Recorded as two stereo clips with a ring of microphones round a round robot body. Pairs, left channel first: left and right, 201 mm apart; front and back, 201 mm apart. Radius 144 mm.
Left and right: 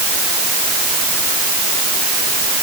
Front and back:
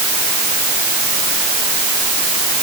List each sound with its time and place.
Only background noise.